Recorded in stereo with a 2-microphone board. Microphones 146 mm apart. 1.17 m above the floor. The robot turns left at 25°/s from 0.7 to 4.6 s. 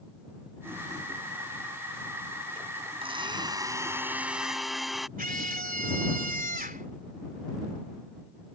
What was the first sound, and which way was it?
A blender, 140° right.